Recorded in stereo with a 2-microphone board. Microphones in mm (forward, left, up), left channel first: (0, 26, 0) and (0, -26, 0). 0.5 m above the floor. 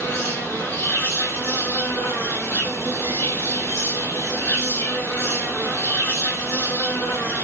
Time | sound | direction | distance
0.0 | an insect | 75° left (ahead or behind) | 2.5 m